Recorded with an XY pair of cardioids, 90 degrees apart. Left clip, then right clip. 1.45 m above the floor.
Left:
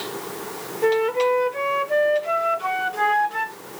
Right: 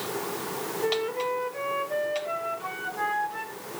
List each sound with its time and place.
0.8 s a flute: 60° left, 0.7 m